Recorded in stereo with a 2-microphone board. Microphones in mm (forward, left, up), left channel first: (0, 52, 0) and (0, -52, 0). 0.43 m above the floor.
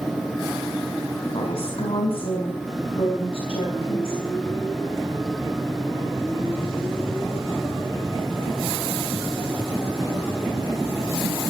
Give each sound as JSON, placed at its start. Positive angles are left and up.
{"t": 1.3, "sound": "a woman speaking", "side_deg": 65, "distance_m": 3.0}